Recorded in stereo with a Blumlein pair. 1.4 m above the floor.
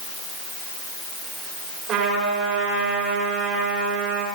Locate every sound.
1.9 s a trumpet: 35° right, 4 m